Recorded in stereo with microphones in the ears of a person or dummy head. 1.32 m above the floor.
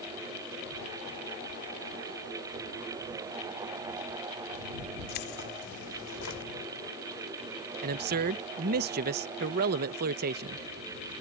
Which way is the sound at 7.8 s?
45° right (ahead or behind).